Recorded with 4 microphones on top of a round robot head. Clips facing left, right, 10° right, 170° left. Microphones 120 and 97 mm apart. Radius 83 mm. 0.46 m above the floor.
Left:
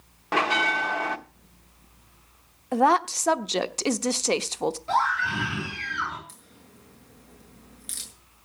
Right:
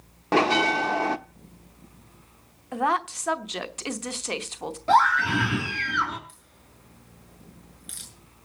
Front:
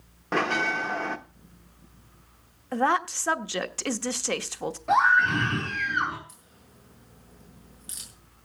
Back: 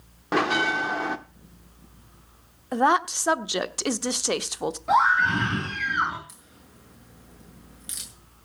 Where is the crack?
135° left, 6.5 m.